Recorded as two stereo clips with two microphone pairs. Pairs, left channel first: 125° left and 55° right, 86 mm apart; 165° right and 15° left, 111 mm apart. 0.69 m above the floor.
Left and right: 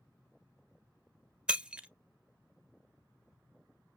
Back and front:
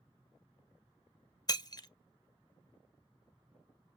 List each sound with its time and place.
1.5 s breaking glass: 135° right, 0.8 m